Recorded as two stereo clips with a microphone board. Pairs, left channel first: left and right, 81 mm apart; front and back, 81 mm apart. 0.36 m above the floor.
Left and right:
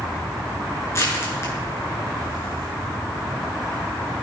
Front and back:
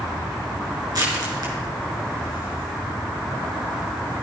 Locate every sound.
0.9 s crushing: 145° left, 6 m